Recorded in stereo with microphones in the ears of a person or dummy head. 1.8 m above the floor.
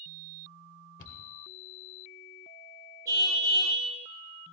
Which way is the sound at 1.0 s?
60° left (ahead or behind).